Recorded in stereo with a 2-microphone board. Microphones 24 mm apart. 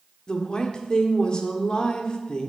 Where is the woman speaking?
35° left (ahead or behind), 1.4 m.